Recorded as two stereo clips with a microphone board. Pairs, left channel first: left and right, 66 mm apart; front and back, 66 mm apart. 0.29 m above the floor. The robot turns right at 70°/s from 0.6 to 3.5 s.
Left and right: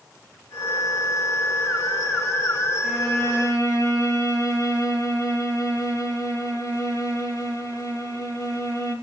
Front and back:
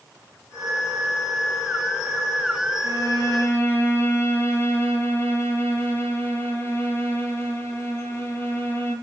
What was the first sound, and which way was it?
A violin, 10° left.